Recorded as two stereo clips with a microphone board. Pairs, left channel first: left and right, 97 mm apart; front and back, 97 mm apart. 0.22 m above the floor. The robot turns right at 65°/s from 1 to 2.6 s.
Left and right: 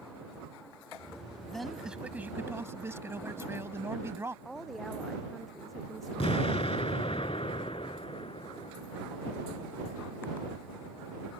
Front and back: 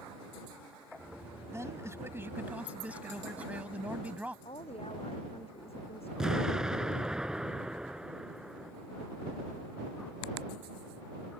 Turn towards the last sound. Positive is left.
turn(degrees=95)